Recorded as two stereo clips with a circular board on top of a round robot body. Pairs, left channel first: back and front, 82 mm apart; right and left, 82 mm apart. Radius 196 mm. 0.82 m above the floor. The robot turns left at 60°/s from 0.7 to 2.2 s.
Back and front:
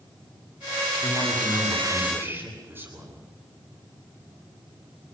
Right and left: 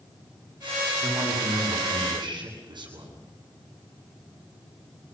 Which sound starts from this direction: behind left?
A man speaking, at 1.0 s.